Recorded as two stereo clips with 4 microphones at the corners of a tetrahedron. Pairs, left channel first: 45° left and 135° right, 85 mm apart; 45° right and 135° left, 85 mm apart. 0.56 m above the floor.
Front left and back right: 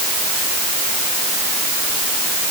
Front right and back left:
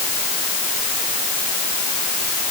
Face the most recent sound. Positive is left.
No sound to turn to.